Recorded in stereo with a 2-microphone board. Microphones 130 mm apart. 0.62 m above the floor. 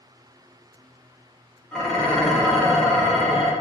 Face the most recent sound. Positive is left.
turn(degrees=5)  # may be behind; listen again after turning